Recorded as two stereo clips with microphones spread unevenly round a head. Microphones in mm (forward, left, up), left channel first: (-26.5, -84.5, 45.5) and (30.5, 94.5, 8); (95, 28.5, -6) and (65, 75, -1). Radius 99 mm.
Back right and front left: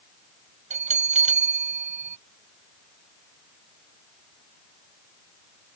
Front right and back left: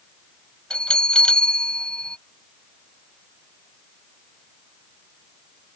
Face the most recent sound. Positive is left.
turn(degrees=15)